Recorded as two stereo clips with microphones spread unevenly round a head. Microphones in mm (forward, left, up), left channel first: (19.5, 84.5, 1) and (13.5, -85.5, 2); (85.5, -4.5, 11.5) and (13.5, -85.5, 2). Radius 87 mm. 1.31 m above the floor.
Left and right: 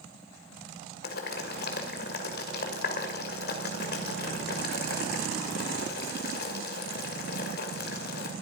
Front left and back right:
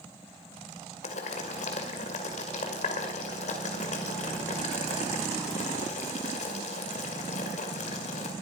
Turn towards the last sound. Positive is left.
turn(degrees=60)